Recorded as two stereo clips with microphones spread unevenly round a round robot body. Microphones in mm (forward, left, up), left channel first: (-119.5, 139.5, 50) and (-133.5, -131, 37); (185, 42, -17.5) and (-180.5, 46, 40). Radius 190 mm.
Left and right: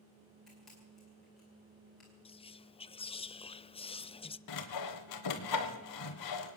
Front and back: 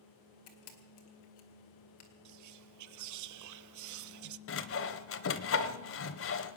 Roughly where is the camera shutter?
Ahead.